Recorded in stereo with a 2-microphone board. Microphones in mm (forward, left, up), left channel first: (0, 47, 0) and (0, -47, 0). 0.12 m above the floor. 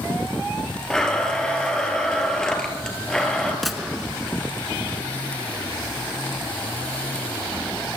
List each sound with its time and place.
0.9 s a blender: 5° left (ahead or behind), 2 m
3.6 s a gunshot: centre (ahead or behind), 0.9 m